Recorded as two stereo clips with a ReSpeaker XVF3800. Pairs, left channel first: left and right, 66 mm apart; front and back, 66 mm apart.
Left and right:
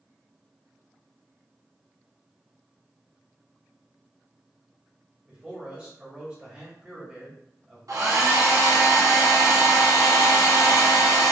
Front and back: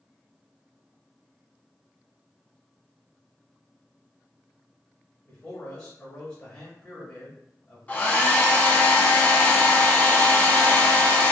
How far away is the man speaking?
About 0.9 m.